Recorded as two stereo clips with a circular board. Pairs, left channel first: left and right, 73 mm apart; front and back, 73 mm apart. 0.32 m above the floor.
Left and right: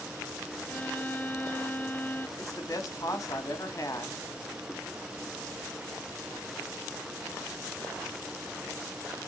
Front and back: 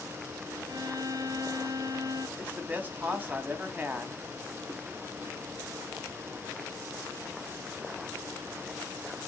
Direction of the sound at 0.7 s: 155° left.